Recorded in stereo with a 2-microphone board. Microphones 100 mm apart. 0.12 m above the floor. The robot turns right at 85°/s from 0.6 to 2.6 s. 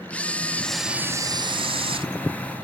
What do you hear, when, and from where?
0.1 s a camera shutter: 165° left, 0.7 m; by 2.1 s 70° right, 0.7 m